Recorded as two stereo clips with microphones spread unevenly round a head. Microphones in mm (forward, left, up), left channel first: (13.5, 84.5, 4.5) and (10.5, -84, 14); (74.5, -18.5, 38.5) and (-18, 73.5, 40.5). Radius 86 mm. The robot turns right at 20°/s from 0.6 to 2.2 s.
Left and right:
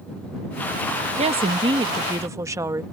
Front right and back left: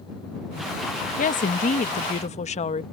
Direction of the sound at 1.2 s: 40° right.